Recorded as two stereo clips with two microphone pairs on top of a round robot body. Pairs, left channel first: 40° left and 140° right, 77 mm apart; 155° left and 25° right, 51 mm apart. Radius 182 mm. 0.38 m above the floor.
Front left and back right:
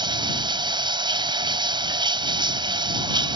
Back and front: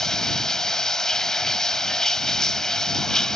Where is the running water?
120° right.